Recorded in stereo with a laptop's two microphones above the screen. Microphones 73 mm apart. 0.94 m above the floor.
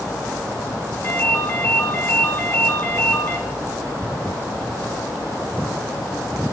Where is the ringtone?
35° left (ahead or behind), 3 m.